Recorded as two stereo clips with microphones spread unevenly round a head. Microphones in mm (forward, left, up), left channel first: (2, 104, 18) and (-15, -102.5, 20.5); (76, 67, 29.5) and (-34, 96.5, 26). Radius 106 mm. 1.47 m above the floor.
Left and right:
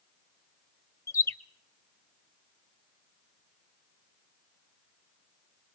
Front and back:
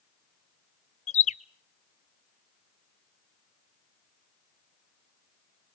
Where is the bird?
10° left, 0.6 m.